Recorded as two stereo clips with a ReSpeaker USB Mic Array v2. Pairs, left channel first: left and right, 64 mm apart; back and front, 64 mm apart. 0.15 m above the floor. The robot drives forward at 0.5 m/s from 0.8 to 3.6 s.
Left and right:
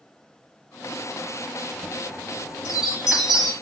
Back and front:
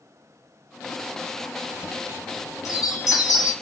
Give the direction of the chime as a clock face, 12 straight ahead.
5 o'clock.